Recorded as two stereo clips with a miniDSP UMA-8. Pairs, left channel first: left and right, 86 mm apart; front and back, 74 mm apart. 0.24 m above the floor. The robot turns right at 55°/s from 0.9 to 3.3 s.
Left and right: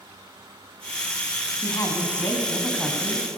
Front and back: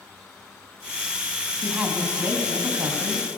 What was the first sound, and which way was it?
A woman speaking, 100° left.